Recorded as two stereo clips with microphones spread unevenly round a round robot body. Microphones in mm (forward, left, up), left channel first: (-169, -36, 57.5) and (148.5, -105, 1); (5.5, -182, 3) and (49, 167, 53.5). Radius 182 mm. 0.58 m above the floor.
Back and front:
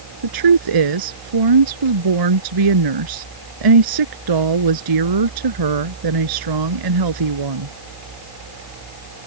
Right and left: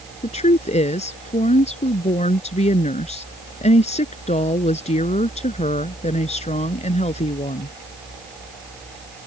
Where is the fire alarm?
I don't hear a fire alarm.